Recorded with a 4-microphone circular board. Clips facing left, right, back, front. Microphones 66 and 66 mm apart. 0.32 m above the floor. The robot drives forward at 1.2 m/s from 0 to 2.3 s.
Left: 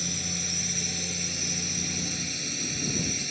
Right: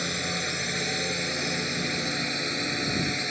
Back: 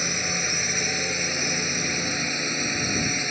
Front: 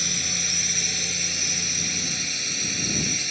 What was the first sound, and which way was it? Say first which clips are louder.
A drone: right 6 dB, back 5 dB; 125° right.